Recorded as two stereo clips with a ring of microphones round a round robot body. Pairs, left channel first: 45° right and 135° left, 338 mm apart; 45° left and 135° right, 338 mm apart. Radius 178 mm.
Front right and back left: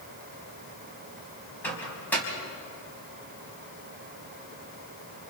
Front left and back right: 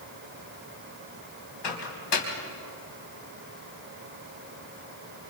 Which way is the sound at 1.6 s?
40° left.